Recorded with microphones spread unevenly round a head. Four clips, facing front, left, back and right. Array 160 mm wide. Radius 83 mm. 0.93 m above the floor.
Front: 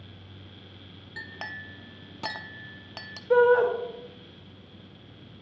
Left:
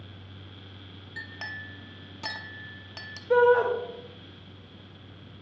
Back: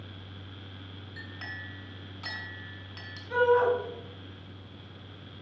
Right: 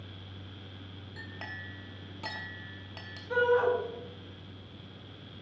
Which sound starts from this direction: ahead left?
A shout, at 3.3 s.